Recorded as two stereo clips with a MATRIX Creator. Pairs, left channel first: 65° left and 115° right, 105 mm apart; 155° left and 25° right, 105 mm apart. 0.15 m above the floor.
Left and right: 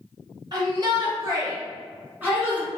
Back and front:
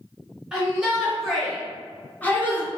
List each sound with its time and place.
0.5 s a shout: 100° right, 1.7 m; by 2.7 s straight behind, 1.3 m